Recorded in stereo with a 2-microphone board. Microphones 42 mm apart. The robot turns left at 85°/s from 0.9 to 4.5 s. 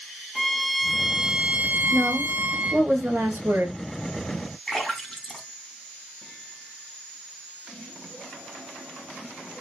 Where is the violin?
5° left, 1.5 m; by 2.9 s 160° right, 1.5 m.